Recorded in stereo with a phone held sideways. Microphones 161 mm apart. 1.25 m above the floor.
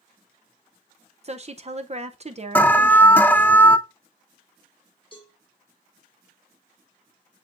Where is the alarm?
10° left (ahead or behind), 0.5 m.